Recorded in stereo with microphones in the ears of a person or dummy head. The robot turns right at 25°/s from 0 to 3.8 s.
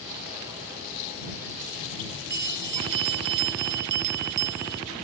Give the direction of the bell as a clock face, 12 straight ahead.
4 o'clock.